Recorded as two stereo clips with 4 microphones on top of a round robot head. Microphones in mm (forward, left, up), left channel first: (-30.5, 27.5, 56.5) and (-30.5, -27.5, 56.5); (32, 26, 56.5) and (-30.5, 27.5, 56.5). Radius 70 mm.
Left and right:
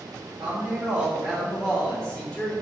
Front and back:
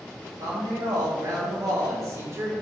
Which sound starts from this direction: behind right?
A woman speaking, at 0.4 s.